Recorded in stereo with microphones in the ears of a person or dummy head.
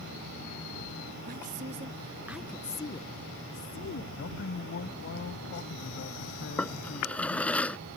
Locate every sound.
1.2 s a woman speaking: 50° right (ahead or behind); by 4.1 s 65° left (ahead or behind)
4.2 s a man speaking: 60° left (ahead or behind)
6.6 s a drawer: 5° left (ahead or behind)